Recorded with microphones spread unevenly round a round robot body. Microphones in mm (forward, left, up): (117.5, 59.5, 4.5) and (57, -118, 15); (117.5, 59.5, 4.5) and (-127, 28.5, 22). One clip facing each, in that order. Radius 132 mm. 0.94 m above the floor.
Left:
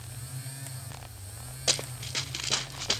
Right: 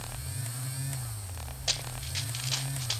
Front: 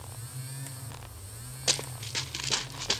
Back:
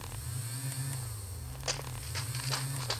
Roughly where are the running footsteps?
Ahead left.